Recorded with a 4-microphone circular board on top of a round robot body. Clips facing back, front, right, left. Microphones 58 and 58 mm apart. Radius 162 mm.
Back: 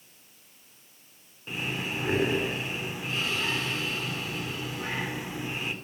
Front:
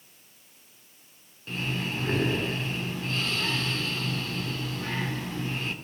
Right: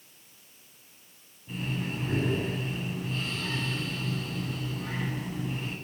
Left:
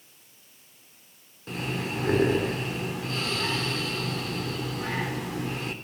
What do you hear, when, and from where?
1.5 s breathing: 105° left, 3.5 m